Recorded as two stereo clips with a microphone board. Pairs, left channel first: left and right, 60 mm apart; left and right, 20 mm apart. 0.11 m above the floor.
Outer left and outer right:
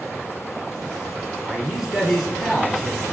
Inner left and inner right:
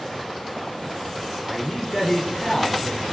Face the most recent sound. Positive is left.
turn(degrees=0)  # may be behind; listen again after turning